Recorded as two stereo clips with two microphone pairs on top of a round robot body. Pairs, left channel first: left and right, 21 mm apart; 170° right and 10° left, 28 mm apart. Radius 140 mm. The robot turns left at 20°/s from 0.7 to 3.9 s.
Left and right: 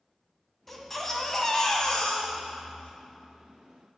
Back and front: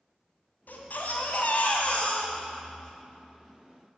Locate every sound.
0.7 s a baby crying: 170° left, 2 m; by 2.9 s 125° left, 2 m